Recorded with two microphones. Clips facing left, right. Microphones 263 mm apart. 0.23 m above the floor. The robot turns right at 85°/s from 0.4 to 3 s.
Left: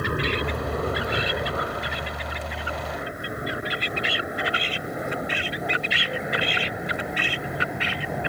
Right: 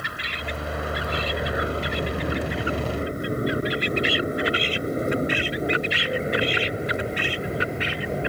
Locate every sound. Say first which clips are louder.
0.0 s an aircraft: left 11 dB; 60° left (ahead or behind); by 8.3 s 30° right (ahead or behind)